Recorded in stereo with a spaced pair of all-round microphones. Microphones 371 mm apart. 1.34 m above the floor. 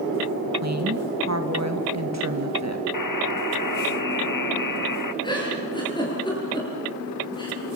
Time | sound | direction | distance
0.6 | a woman speaking | 45° right (ahead or behind) | 2 m
2.9 | a buzzer | 60° left (ahead or behind) | 0.8 m
5.2 | a giggle | 10° left (ahead or behind) | 7.5 m